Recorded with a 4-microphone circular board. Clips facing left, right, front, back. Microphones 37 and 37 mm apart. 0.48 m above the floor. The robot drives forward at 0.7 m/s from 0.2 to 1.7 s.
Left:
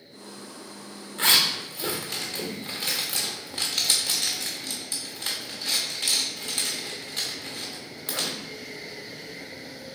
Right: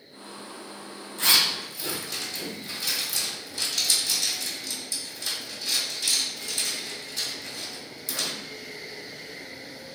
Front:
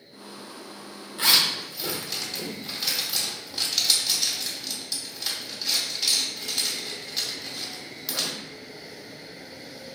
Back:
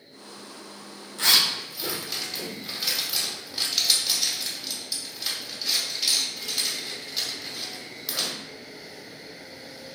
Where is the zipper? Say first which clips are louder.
Left 1 dB, even; 65° left, 0.9 m; by 8.4 s 95° left, 0.8 m.